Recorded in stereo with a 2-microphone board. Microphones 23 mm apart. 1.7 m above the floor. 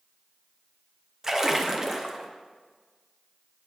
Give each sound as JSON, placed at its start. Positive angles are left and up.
{"t": 1.2, "sound": "a splash", "side_deg": -20, "distance_m": 0.6}